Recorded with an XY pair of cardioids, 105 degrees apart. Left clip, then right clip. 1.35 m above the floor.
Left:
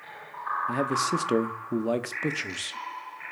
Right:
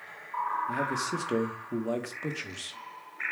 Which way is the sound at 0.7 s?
40° left.